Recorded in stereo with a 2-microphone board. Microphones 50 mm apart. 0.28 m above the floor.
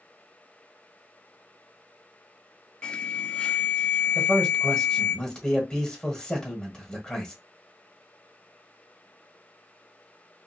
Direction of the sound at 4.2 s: 15° left (ahead or behind).